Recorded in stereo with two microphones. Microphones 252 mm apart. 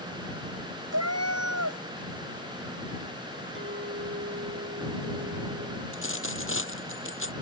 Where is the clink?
50° right (ahead or behind).